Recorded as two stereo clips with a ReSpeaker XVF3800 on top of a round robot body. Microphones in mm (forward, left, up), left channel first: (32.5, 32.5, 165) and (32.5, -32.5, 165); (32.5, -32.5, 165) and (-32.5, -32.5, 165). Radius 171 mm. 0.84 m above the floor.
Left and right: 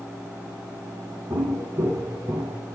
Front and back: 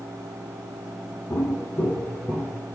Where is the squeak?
No squeak in this recording.